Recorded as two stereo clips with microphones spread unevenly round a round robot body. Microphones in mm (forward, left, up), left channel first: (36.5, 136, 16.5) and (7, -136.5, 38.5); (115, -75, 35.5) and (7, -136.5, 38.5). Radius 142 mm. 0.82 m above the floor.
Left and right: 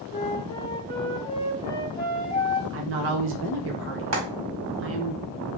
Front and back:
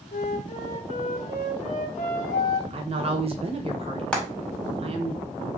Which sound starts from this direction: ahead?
A flute, at 0.1 s.